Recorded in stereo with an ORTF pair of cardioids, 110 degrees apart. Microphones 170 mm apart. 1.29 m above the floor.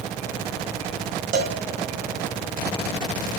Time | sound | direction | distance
1.3 | a cowbell | 60° right | 1.2 m